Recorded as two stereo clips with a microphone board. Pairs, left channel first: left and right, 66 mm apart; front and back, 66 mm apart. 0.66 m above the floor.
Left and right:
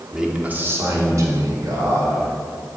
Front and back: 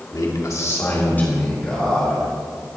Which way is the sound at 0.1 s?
5° right.